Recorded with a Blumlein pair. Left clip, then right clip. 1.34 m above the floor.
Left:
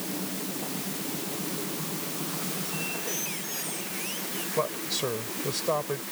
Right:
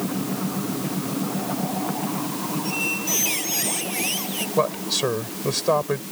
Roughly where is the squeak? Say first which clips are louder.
Right 11 dB; ahead right.